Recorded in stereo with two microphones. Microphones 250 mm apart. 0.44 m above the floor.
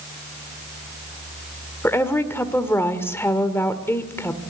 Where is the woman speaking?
10° left (ahead or behind), 1.6 m.